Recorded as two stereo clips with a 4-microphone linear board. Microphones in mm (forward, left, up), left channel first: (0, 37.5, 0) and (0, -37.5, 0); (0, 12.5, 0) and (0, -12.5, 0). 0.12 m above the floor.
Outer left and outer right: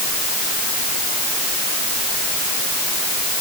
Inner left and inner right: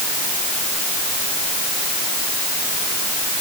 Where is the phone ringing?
No phone ringing in this recording.